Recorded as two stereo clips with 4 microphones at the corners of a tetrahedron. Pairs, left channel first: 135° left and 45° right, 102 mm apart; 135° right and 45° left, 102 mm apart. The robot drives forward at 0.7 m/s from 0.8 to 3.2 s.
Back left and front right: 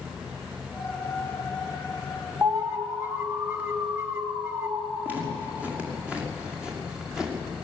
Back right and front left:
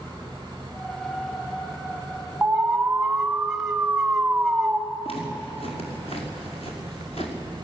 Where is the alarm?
20° right, 1.9 m; by 4.8 s 35° right, 1.7 m.